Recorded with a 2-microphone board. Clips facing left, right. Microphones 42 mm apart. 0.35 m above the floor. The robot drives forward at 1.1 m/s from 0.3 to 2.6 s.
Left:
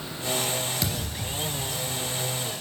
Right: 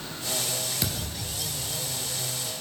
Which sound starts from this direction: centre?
A thud, at 0.8 s.